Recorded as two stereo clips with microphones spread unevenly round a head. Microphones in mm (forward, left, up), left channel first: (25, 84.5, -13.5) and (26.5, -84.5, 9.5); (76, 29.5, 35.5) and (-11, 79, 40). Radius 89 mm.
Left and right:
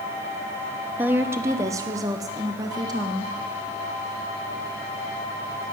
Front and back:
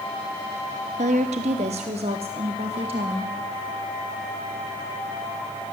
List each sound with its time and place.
1.0 s a woman speaking: 170° right, 0.6 m; by 3.3 s 160° right, 1.9 m